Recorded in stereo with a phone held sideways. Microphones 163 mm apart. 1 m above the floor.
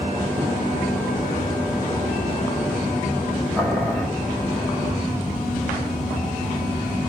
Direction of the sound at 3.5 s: 5° right (ahead or behind).